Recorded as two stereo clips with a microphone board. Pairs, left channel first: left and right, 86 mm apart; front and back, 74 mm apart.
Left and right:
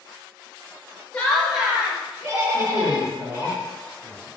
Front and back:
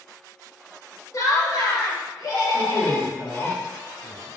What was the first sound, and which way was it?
Laughter, 15° left.